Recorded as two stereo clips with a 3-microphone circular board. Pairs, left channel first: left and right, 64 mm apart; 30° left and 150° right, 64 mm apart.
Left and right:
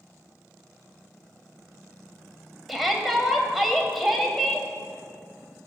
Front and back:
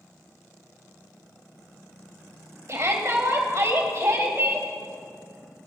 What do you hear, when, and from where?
2.7 s a shout: straight behind, 1.7 m